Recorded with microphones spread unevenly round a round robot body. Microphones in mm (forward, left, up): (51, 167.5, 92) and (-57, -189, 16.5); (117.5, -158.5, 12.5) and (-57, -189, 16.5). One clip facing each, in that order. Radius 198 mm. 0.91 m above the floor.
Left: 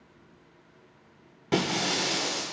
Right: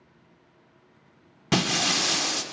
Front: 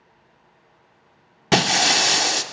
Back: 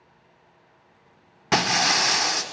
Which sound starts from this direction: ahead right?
Breaking glass, at 1.5 s.